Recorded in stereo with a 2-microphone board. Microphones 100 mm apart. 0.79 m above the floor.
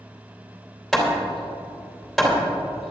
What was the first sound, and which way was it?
Hammering, centre (ahead or behind).